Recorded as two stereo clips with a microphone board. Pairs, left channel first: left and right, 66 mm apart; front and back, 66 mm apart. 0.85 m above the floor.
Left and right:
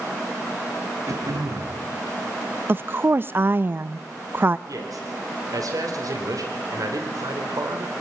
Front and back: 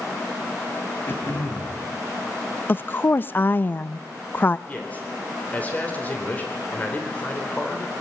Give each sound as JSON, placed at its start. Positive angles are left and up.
{"t": 1.1, "sound": "throat clearing", "azimuth_deg": -60, "distance_m": 5.0}
{"t": 2.7, "sound": "a woman speaking", "azimuth_deg": -50, "distance_m": 0.5}
{"t": 4.7, "sound": "a man speaking", "azimuth_deg": -65, "distance_m": 3.5}